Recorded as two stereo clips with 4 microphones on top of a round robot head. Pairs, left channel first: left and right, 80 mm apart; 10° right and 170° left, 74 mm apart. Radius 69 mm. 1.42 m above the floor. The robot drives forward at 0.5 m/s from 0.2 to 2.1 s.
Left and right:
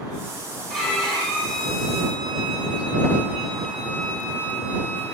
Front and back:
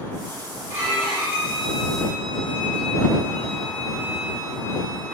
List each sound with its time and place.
0.7 s a violin: 175° left, 2.5 m